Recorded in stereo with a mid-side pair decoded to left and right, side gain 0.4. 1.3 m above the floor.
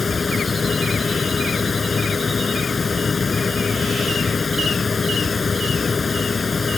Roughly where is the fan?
Ahead left.